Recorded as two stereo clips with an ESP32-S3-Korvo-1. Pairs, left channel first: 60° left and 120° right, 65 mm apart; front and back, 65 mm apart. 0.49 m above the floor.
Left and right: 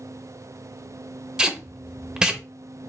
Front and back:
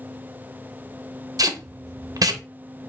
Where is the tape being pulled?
160° left, 0.5 m.